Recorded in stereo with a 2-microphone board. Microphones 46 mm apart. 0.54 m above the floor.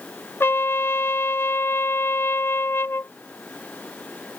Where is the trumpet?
65° left (ahead or behind).